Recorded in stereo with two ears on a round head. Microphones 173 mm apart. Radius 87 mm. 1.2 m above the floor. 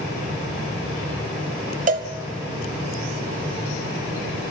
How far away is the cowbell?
About 1.3 m.